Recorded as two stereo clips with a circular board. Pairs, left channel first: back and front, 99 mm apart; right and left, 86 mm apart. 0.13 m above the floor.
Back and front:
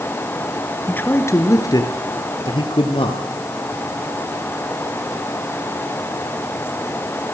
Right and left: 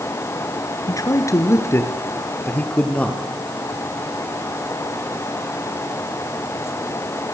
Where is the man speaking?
110° right, 2.5 m; by 3.2 s 165° right, 4 m.